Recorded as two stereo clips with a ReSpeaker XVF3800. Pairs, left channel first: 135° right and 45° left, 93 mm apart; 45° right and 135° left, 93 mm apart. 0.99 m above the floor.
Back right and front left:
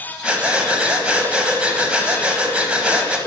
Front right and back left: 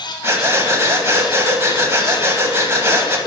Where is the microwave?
I don't hear a microwave.